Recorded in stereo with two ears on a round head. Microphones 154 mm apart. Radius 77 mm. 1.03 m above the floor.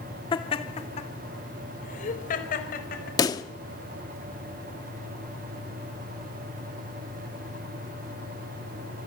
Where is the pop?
20° left (ahead or behind), 1.3 m.